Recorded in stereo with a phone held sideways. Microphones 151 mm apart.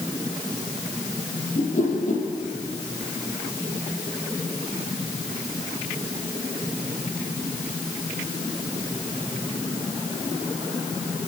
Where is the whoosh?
55° left (ahead or behind), 5 m.